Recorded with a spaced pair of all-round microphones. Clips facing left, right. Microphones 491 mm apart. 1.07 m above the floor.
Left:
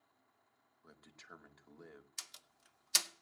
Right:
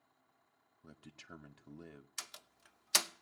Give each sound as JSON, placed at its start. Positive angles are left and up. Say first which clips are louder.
{"t": 0.8, "sound": "a man speaking", "louder": "right 6 dB", "side_deg": -50, "distance_m": 1.0}
{"t": 2.2, "sound": "a door slam", "louder": "right 7 dB", "side_deg": -75, "distance_m": 0.6}